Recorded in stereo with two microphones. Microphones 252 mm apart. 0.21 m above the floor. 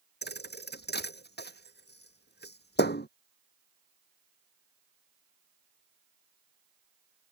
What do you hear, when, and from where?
0.2 s a thud: 40° left (ahead or behind)